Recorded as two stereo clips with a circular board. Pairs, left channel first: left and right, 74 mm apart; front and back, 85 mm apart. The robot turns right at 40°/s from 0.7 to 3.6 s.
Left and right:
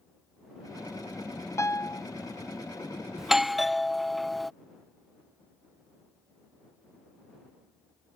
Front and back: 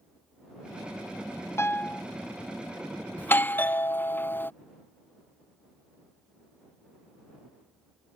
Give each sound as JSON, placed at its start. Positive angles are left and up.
{"t": 1.6, "sound": "a piano", "azimuth_deg": 50}
{"t": 3.2, "sound": "a doorbell", "azimuth_deg": -15}